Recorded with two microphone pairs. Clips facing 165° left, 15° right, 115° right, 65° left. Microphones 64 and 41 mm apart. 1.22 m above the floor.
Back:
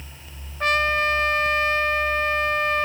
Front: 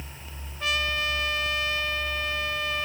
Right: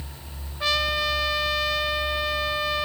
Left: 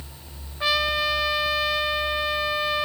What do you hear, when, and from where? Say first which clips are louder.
0.6 s a trumpet: back 7 dB, left 1 dB; 140° left, 0.6 m